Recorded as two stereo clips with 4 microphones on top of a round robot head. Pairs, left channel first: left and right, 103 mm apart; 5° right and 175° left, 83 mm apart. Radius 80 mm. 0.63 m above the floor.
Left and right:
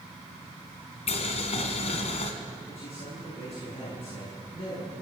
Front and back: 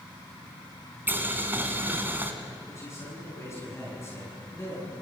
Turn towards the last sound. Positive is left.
turn(degrees=50)